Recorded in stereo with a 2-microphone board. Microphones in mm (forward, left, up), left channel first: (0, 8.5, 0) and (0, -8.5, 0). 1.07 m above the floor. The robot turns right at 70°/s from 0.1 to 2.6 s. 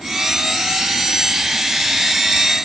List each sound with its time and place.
Only background noise.